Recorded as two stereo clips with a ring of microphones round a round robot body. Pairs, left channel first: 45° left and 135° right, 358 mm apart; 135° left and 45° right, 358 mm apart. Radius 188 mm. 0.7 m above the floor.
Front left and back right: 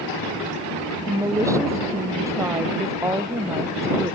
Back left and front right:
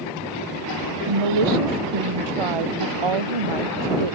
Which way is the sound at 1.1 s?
55° right.